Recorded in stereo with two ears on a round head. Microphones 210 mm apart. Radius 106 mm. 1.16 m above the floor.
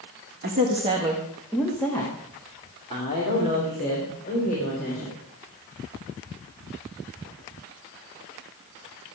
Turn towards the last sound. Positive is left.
turn(degrees=40)  # may be behind; listen again after turning